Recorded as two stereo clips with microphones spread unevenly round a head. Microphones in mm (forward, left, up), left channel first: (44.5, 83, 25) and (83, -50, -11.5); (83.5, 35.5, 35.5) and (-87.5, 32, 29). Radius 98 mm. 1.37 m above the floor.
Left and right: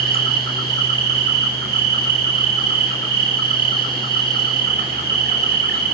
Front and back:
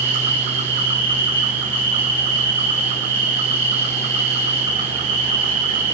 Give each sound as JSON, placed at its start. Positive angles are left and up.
{"t": 0.0, "sound": "an insect", "azimuth_deg": -115, "distance_m": 6.0}